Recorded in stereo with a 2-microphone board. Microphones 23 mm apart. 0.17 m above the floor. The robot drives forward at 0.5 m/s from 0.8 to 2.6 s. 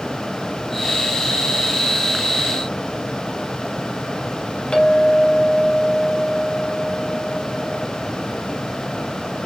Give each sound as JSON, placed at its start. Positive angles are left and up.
{"t": 4.7, "sound": "a clink", "side_deg": 45, "distance_m": 3.5}